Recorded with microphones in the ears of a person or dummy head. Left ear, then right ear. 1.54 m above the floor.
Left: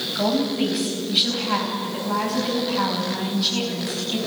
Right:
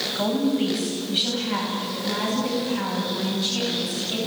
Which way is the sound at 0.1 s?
10° left (ahead or behind).